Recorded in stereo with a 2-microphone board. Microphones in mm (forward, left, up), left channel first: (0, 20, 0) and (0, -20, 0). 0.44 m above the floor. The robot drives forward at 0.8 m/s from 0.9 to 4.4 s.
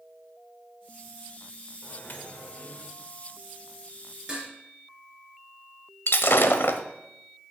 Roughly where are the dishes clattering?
Centre.